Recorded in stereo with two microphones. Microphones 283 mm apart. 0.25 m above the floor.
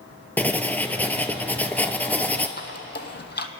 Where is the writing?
5° left (ahead or behind), 0.8 m.